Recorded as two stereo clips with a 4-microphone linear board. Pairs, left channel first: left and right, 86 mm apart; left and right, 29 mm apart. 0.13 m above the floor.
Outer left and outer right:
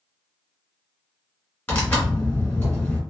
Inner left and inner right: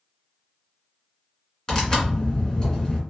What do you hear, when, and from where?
1.7 s tearing paper: 20° left (ahead or behind), 1.6 m